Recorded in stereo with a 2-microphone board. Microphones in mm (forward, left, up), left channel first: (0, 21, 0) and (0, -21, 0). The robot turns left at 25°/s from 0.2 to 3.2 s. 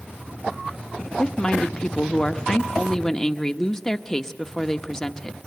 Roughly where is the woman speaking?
Left.